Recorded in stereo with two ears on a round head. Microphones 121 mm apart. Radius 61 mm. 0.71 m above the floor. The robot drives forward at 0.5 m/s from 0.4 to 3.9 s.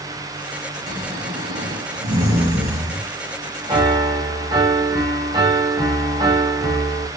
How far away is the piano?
About 3 m.